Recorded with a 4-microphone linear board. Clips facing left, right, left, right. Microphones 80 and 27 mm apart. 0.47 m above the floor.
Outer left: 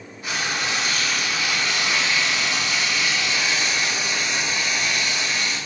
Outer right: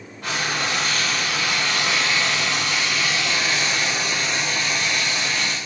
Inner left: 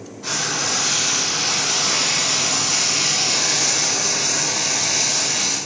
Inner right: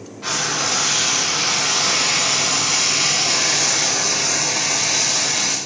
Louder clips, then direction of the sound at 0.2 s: Outer right 1 dB, inner right 2 dB; 80° right.